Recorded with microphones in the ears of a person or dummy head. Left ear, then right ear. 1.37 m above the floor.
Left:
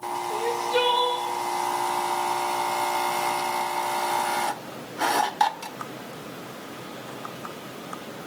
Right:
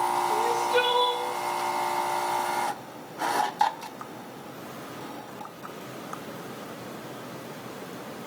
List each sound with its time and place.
0.3 s crying: 5° left (ahead or behind), 1.0 m